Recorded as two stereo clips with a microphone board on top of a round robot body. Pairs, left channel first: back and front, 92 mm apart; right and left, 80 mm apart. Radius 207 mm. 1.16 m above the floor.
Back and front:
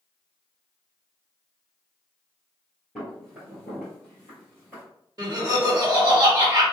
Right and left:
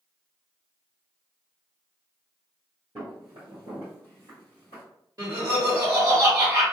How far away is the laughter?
About 1.2 m.